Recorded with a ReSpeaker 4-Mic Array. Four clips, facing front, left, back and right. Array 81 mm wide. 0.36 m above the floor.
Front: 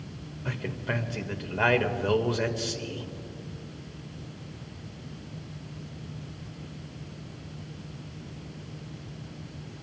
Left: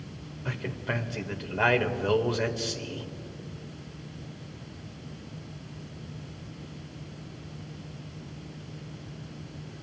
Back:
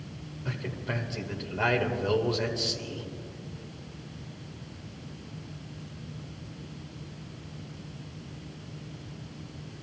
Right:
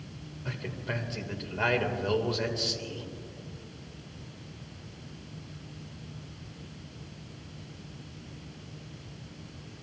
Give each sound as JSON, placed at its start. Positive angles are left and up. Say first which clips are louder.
{"t": 0.5, "sound": "a man speaking", "louder": "left 3 dB, front 2 dB", "azimuth_deg": 50, "distance_m": 1.3}